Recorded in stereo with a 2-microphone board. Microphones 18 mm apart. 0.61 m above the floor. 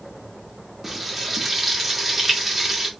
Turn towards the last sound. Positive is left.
turn(degrees=-5)  # may be behind; listen again after turning